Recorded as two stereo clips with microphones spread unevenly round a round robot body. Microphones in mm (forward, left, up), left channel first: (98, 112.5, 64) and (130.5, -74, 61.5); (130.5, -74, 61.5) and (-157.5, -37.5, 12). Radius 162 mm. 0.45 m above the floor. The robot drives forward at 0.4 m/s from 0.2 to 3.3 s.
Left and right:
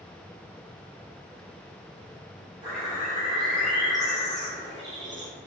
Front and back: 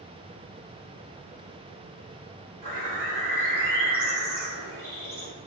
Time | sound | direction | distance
2.6 | a bird | 140° right | 2.0 m